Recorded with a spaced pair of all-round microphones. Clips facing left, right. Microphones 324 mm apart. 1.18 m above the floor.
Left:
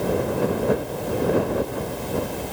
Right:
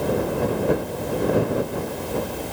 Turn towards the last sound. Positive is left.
No sound to turn to.